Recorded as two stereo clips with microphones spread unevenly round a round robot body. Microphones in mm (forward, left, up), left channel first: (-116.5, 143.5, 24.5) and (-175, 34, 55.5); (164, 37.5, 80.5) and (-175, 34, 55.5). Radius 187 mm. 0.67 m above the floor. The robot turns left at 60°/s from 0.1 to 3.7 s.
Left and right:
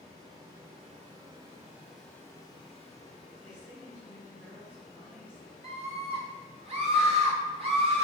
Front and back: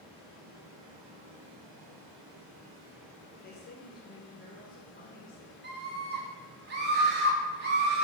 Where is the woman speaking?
Straight ahead, 1.1 m; by 5.5 s 20° right, 1.1 m.